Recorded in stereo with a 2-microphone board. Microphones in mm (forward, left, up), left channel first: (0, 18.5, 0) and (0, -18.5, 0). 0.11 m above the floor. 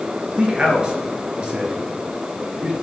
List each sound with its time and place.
0.4 s a man speaking: 25° right (ahead or behind), 1.8 m